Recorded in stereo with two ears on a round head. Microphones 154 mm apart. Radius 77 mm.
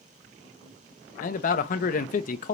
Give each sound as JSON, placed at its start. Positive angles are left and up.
{"t": 1.2, "sound": "a man speaking", "side_deg": 50, "distance_m": 0.7}